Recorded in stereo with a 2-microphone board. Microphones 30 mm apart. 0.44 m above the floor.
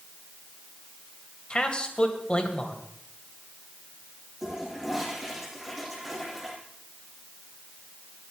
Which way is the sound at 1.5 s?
30° left (ahead or behind).